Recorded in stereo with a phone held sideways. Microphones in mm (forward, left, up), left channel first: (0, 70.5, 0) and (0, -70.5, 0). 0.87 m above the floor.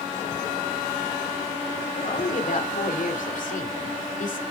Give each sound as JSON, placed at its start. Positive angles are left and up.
{"t": 2.0, "sound": "a woman speaking", "side_deg": 65, "distance_m": 2.5}